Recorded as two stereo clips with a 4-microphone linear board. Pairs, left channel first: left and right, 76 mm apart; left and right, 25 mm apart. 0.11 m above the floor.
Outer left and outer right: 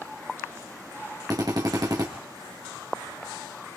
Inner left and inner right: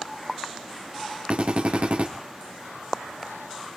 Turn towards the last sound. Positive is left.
turn(degrees=-55)  # may be behind; listen again after turning